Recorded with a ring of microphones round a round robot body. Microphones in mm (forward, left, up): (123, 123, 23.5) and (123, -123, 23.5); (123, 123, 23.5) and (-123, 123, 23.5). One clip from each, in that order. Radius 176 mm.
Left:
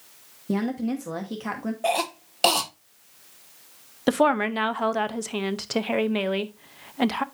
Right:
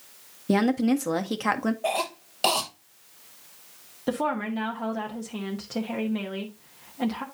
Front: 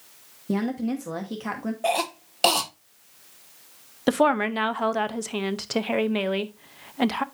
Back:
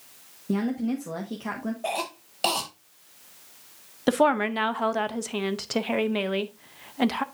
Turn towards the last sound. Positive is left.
turn(degrees=80)